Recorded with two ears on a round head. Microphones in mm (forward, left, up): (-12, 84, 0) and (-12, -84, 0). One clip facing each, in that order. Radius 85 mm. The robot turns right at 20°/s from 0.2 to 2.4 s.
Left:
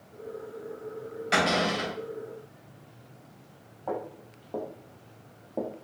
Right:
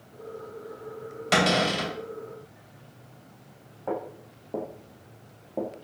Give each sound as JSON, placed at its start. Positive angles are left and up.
{"t": 1.3, "sound": "a cupboard door", "side_deg": -60, "distance_m": 2.5}
{"t": 3.9, "sound": "footsteps", "side_deg": -15, "distance_m": 2.0}